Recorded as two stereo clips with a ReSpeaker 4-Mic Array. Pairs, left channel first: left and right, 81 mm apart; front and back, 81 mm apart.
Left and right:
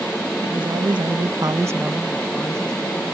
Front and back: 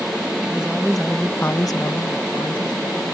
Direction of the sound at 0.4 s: 105° right.